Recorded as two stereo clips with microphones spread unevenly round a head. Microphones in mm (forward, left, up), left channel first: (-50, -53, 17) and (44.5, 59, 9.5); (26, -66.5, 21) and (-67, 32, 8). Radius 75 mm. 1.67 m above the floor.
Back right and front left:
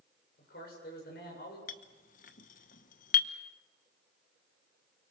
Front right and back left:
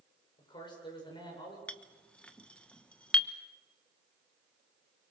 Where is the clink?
120° right, 1.0 m.